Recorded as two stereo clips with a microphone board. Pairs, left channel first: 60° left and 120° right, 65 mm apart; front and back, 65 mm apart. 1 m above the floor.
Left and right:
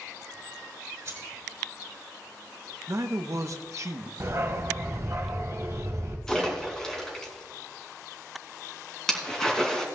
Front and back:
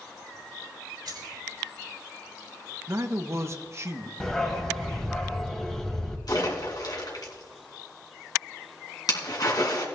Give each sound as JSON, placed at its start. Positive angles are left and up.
{"t": 1.1, "sound": "keys jangling", "azimuth_deg": -170, "distance_m": 4.0}
{"t": 2.9, "sound": "a man speaking", "azimuth_deg": -145, "distance_m": 0.9}
{"t": 4.2, "sound": "a dog barking", "azimuth_deg": -80, "distance_m": 1.8}
{"t": 6.3, "sound": "a splash", "azimuth_deg": -25, "distance_m": 3.0}